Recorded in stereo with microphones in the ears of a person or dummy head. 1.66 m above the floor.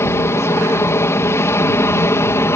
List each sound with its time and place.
0.0 s an aircraft: 15° left (ahead or behind)